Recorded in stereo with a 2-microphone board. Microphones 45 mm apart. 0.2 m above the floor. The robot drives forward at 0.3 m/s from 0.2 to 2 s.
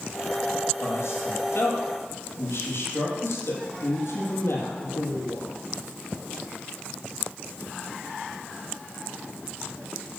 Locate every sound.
0.8 s a man speaking: 60° left (ahead or behind), 6 m